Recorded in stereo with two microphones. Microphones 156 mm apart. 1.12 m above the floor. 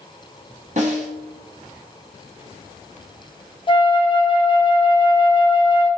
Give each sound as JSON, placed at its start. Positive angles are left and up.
{"t": 0.8, "sound": "a snare drum", "side_deg": -50, "distance_m": 1.1}
{"t": 3.7, "sound": "a flute", "side_deg": 30, "distance_m": 0.7}